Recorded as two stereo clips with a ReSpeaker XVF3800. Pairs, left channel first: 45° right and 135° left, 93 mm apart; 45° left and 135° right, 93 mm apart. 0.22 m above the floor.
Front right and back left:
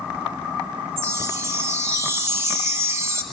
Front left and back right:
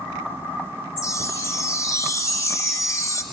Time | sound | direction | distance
1.0 | a chime | 85° left | 1.4 m